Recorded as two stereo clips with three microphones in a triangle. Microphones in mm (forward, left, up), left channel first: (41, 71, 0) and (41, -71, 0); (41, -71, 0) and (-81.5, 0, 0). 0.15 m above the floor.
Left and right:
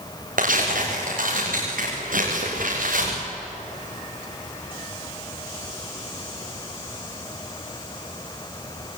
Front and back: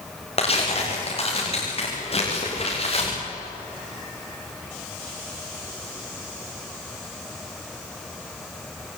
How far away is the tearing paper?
About 7 m.